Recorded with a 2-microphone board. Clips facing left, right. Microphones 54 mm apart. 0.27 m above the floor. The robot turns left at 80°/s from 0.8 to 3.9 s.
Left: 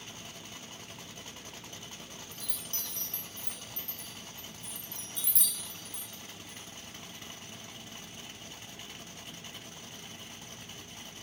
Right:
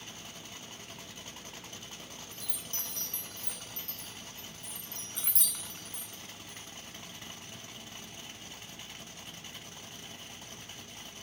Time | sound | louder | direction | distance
2.3 | a chime | even | 5° left (ahead or behind) | 1.4 m